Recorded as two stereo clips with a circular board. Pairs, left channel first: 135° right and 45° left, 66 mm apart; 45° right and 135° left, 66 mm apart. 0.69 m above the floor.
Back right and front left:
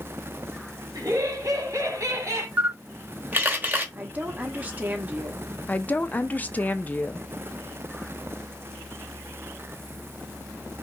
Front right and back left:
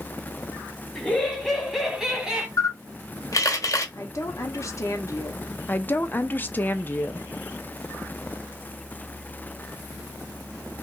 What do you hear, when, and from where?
0.9 s laughter: 30° left, 2.5 m; by 2.5 s 60° left, 1.6 m
2.6 s a camera shutter: 15° right, 1.2 m
4.0 s a woman speaking: 20° right, 1.2 m
5.7 s a woman speaking: 85° right, 0.6 m